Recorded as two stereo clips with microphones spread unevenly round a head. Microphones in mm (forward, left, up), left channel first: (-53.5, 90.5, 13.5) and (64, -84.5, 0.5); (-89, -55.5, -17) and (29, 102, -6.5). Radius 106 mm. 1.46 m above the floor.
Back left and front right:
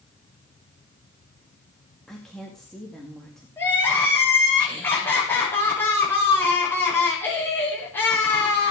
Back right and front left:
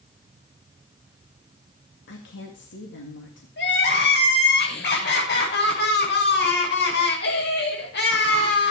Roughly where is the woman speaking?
Behind right.